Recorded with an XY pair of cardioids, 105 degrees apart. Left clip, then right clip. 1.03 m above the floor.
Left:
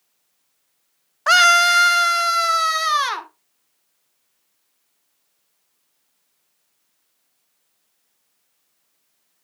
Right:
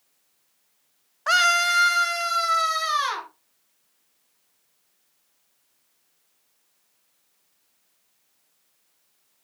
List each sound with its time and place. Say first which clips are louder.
1.3 s a scream: left 6 dB; 45° left, 0.5 m